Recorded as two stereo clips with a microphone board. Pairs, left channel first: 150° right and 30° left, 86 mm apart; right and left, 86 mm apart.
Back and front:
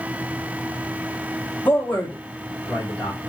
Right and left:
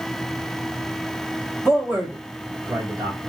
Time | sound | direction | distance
1.6 | a man speaking | 165° left | 0.7 m